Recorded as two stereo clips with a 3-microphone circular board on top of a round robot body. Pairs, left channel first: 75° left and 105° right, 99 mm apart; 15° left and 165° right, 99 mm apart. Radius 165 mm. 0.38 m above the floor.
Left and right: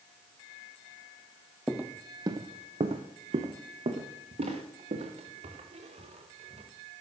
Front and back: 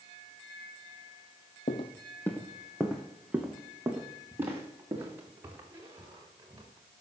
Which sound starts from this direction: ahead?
Footsteps, at 1.7 s.